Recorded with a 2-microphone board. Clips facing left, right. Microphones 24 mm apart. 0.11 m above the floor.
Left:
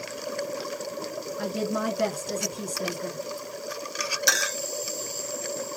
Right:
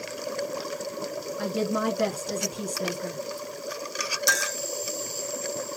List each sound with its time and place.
1.4 s a woman speaking: 5° right (ahead or behind), 1.2 m
4.3 s a clink: 35° left (ahead or behind), 0.9 m